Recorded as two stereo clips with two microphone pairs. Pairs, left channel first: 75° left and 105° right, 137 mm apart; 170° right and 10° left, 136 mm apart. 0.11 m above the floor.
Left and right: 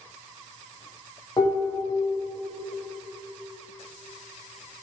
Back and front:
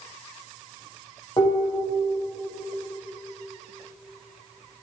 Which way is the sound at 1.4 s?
135° left.